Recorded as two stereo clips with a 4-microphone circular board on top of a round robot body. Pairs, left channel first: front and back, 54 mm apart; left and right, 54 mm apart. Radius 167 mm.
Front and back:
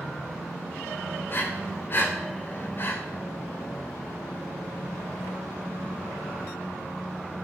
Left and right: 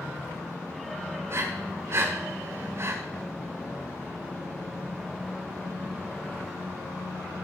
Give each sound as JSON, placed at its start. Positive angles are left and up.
{"t": 1.3, "sound": "breathing", "azimuth_deg": -50, "distance_m": 1.5}